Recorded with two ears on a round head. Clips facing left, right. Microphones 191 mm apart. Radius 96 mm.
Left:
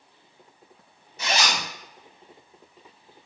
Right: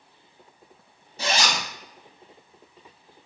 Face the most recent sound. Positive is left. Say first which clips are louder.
# right 1 dB
turn(degrees=-30)  # may be behind; listen again after turning